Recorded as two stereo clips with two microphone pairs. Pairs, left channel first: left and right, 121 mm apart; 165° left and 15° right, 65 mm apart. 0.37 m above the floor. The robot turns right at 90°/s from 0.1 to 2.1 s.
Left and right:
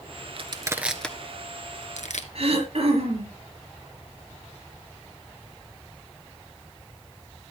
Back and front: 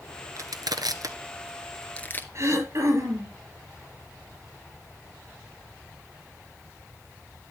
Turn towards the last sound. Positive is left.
turn(degrees=-55)